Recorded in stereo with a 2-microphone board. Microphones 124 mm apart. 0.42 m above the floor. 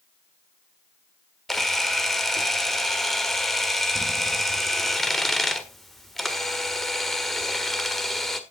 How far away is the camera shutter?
About 1.6 m.